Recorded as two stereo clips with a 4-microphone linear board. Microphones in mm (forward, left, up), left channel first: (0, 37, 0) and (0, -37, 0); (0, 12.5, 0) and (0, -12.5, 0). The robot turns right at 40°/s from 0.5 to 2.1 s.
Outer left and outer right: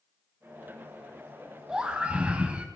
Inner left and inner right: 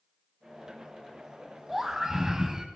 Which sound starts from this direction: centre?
A scream, at 1.7 s.